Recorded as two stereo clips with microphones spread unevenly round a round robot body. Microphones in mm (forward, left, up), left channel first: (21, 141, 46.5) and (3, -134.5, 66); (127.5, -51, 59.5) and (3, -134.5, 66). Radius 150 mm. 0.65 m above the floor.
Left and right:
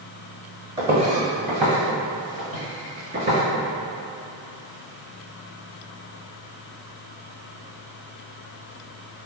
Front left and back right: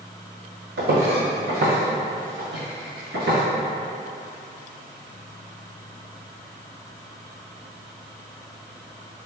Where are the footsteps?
160° right, 1.2 m; by 3.4 s 155° right, 2.5 m.